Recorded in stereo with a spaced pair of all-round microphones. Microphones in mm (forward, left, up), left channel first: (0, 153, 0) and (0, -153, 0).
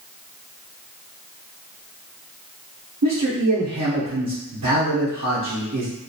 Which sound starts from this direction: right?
A man speaking, at 3.0 s.